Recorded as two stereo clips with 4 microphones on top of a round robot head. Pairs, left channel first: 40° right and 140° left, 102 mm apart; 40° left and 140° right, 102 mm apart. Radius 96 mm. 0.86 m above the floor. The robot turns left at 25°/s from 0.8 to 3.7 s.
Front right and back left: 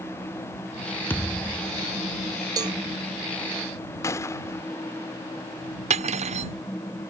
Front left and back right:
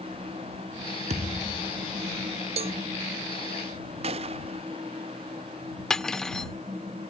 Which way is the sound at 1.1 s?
115° right.